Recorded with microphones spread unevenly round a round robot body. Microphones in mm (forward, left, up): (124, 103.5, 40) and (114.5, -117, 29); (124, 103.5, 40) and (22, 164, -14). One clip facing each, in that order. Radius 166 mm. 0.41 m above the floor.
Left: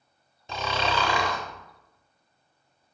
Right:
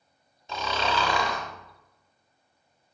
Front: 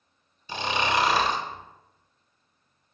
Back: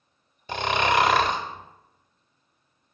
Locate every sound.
0.5 s snoring: 120° left, 0.5 m